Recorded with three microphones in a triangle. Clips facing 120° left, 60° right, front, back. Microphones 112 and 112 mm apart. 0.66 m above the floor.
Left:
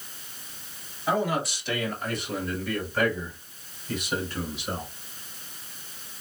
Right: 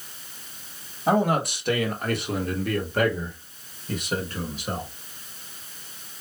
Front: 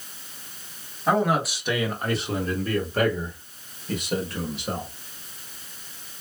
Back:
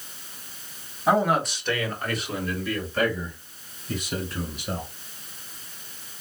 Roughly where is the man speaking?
Right.